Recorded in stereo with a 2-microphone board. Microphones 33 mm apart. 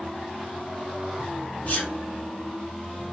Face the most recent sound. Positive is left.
turn(degrees=50)  # may be behind; listen again after turning